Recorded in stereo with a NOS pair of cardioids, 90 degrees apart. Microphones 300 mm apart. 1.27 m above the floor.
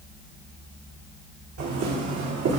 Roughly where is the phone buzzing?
I don't hear a phone buzzing.